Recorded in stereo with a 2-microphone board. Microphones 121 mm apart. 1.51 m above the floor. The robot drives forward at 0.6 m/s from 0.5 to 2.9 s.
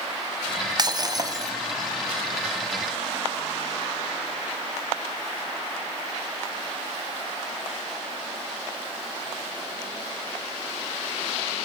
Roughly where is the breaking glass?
Right.